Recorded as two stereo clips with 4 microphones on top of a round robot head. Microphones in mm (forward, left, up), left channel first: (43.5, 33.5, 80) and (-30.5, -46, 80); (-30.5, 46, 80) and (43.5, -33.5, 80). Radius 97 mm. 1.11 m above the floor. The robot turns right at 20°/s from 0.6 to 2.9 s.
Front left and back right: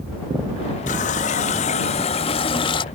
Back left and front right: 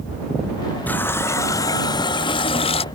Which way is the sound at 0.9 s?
60° left.